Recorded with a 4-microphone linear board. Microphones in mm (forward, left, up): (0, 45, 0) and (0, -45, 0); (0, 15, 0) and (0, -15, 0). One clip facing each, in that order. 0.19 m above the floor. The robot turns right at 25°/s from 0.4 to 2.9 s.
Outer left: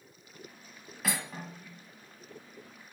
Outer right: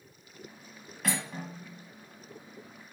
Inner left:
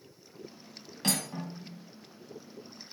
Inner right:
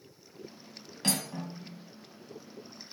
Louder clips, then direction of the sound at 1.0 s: Outer right 2 dB, even; 5° left (ahead or behind).